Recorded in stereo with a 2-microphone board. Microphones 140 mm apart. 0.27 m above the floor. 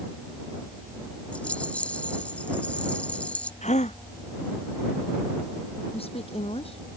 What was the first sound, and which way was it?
A rattle, 10° left (ahead or behind).